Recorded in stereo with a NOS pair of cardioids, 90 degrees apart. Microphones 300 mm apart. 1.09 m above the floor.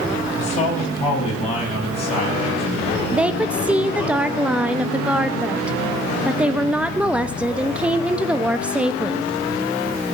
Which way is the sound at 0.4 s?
20° left.